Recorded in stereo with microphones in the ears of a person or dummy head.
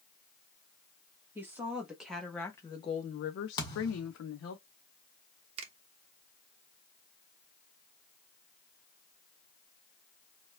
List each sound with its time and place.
1.4 s a woman speaking: 15° right (ahead or behind), 1.1 m; by 4.6 s 70° left (ahead or behind), 0.8 m
3.6 s a thud: 25° left (ahead or behind), 1.7 m
5.6 s a finger snap: 30° right (ahead or behind), 0.8 m